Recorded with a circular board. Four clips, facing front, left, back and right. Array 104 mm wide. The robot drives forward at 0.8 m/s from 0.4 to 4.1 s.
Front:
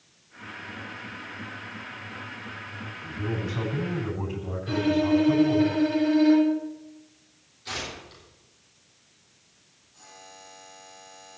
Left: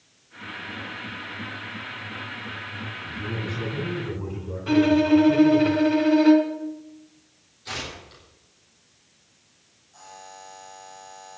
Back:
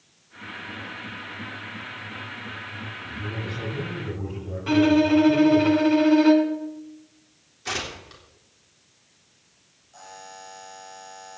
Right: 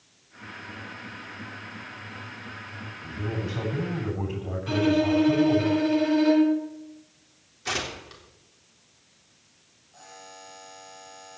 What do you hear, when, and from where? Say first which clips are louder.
3.0 s a man speaking: right 1 dB, front 4 dB; 60° right, 9 m; by 5.7 s 65° right, 8.5 m
4.7 s a violin: left 5 dB, back 5 dB; 165° left, 3 m
7.7 s tearing paper: right 4 dB, back 4 dB; 135° right, 3.5 m
9.9 s a buzzer: left 3 dB, back 7 dB; 175° right, 7.5 m